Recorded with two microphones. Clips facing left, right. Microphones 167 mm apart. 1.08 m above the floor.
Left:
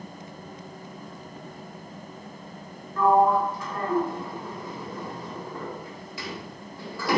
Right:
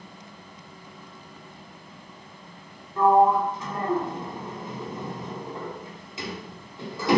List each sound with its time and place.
3.0 s a sliding door: 20° right (ahead or behind), 2 m